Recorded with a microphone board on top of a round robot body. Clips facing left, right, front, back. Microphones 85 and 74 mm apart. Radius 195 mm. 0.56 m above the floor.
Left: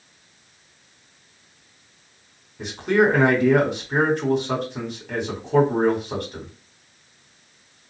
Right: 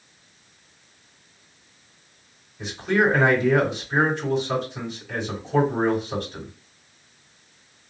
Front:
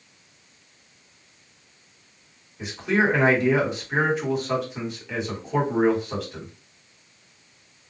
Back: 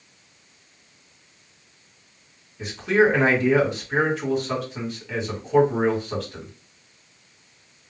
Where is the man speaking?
80° left, 1.9 m.